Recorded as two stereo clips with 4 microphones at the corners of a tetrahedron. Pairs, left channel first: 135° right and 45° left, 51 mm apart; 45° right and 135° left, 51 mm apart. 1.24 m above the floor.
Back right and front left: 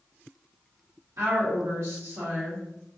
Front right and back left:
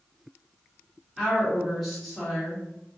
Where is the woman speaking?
40° left, 1.0 m.